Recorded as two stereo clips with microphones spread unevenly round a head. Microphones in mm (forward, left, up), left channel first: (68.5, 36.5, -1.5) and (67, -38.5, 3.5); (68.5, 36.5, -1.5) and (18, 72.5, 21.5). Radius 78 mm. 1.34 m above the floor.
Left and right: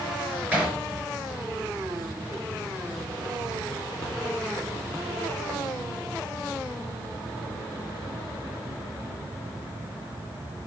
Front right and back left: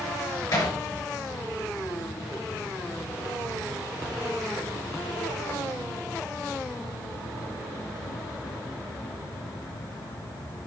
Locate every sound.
0.5 s hammering: 20° right, 6 m